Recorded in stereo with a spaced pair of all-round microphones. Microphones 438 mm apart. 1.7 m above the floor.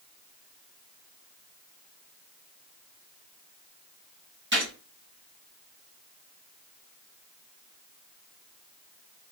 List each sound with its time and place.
4.5 s a gunshot: 25° right (ahead or behind), 2.5 m